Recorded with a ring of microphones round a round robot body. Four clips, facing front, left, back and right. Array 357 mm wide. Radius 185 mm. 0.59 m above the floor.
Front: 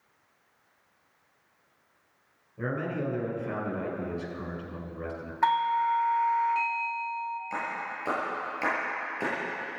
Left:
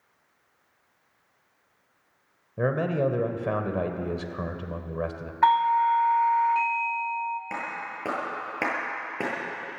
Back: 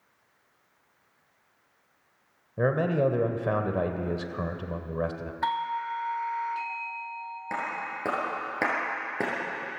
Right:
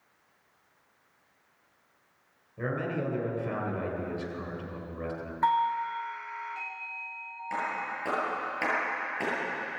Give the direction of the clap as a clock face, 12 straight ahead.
7 o'clock.